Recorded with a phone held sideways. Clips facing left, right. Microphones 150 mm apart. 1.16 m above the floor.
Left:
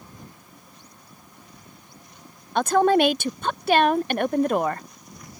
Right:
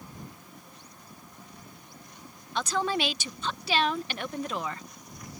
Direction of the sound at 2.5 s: 50° left (ahead or behind).